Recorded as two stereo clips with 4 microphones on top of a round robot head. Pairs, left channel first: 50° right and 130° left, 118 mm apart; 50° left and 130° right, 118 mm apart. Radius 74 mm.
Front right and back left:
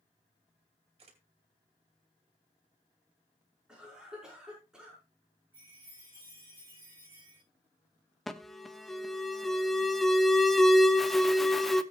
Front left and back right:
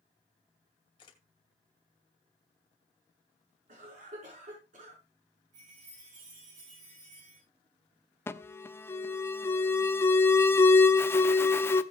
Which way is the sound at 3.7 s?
145° right.